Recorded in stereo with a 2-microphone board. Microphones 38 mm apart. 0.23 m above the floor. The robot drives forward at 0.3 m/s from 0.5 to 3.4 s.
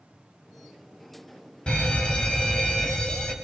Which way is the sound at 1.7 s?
25° left (ahead or behind).